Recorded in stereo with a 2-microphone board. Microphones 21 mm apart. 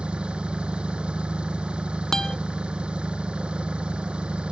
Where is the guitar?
30° left (ahead or behind).